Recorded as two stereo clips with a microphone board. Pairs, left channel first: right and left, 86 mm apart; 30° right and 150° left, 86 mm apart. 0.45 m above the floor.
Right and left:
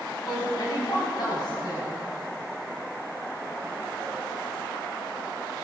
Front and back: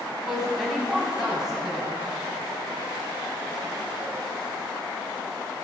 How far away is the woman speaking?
About 3.5 m.